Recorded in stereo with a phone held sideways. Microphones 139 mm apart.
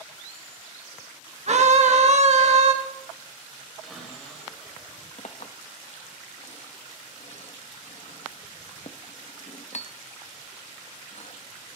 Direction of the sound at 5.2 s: 55° left (ahead or behind).